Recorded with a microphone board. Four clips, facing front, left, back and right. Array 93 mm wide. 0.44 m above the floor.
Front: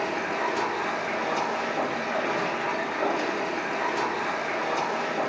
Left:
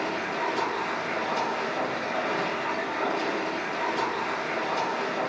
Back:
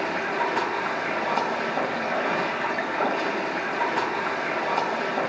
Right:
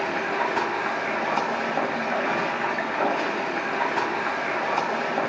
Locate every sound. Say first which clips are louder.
0.0 s running water: right 3 dB, back 2 dB; 125° right, 1.2 m